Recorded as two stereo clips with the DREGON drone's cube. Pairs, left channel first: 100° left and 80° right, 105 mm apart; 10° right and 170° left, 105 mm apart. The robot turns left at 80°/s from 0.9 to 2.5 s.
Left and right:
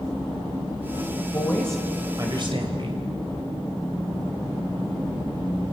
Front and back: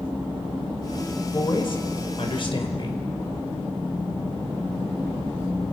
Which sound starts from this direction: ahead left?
A woman speaking, at 1.3 s.